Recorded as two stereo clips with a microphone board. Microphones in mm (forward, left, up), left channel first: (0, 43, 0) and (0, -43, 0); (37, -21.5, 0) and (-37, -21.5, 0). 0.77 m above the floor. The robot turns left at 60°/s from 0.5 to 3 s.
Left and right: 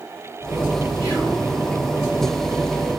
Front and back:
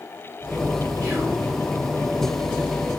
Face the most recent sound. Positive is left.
turn(degrees=25)